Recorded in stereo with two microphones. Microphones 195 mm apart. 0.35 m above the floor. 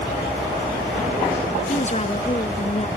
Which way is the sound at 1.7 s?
35° left (ahead or behind).